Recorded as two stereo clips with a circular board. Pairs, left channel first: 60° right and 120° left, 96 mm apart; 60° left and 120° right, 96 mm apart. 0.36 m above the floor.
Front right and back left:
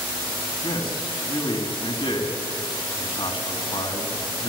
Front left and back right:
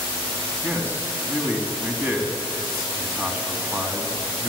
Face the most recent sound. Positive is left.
turn(degrees=-55)